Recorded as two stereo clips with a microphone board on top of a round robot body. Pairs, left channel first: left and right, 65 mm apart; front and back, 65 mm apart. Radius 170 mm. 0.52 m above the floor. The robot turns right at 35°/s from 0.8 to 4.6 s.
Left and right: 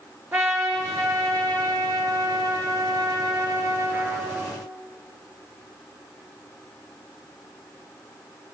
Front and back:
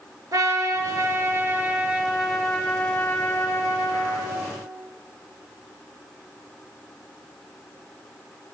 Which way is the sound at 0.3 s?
145° right.